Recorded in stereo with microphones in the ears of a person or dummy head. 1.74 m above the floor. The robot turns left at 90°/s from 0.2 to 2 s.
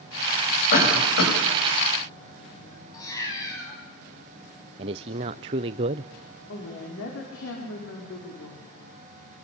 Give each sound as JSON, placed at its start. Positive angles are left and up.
{"t": 0.7, "sound": "a cough", "side_deg": 35, "distance_m": 8.5}
{"t": 2.9, "sound": "a cat meowing", "side_deg": 20, "distance_m": 7.0}
{"t": 4.8, "sound": "a man speaking", "side_deg": -20, "distance_m": 0.6}
{"t": 6.5, "sound": "a woman speaking", "side_deg": 65, "distance_m": 5.0}